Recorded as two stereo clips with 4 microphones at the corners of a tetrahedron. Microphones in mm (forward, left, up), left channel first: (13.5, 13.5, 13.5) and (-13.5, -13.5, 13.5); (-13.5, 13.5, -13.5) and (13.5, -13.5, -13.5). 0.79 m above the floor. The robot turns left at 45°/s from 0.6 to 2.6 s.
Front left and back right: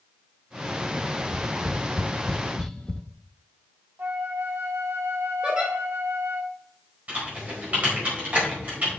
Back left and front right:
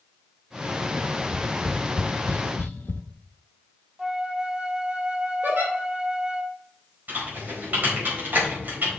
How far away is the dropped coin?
I don't hear a dropped coin.